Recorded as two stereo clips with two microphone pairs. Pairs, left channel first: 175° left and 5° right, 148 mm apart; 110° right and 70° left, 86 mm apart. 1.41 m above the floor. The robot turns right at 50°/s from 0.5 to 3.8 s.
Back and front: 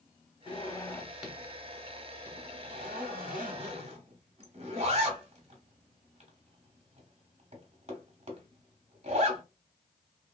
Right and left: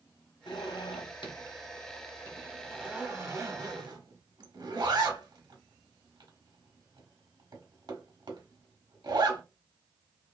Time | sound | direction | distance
0.5 | a zipper | 130° right | 1.1 m